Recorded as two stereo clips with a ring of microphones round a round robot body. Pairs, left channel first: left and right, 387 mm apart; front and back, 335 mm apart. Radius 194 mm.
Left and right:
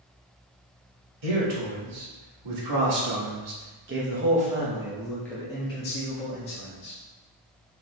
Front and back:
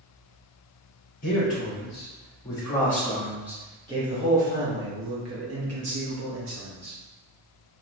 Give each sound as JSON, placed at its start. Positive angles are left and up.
{"t": 1.2, "sound": "a man speaking", "azimuth_deg": -70, "distance_m": 1.9}